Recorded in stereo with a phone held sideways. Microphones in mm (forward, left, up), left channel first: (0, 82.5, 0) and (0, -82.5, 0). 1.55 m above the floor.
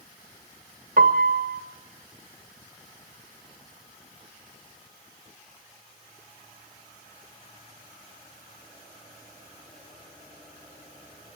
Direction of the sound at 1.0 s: 65° right (ahead or behind).